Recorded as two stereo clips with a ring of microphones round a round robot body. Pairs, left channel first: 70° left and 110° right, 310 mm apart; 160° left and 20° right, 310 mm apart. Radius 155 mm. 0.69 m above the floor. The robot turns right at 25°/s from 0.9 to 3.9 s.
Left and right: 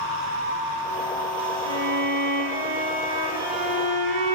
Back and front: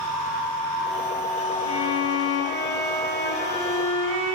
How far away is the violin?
About 1.2 m.